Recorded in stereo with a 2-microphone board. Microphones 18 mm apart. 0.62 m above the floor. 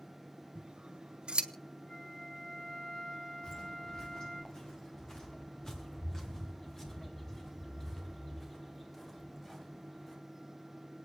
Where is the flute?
80° left, 3 m.